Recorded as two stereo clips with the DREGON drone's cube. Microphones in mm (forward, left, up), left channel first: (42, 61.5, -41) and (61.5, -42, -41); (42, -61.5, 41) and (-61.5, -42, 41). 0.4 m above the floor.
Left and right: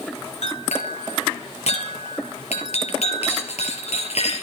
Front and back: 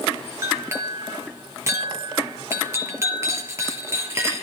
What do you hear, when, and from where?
0.4 s a clink: 105° left, 4.5 m